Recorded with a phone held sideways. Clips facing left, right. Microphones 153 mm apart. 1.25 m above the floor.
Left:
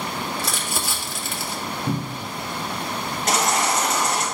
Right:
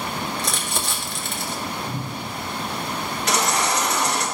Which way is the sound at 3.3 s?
45° left (ahead or behind).